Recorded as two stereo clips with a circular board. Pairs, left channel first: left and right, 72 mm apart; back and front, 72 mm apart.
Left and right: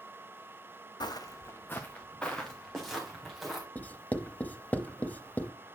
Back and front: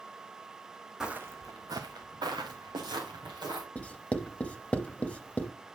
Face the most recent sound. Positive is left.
turn(degrees=130)